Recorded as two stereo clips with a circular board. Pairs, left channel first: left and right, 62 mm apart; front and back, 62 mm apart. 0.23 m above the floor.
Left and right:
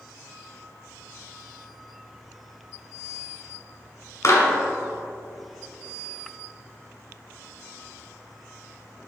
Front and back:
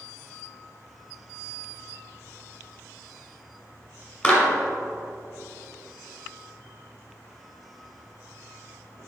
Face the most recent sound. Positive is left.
turn(degrees=65)